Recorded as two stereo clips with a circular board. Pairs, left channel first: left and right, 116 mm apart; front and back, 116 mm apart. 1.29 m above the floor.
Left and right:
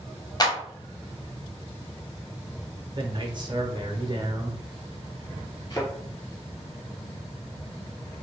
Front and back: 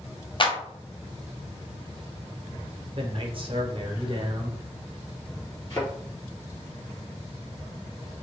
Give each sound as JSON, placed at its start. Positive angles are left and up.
{"t": 0.4, "sound": "a clap", "azimuth_deg": 40, "distance_m": 0.5}
{"t": 3.0, "sound": "a man speaking", "azimuth_deg": -140, "distance_m": 0.6}
{"t": 5.7, "sound": "a thud", "azimuth_deg": 55, "distance_m": 1.6}